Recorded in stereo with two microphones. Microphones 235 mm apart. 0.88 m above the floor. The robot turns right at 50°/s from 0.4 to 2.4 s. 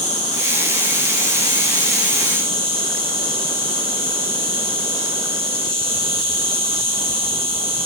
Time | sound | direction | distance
0.0 | an insect | 105° left | 7 m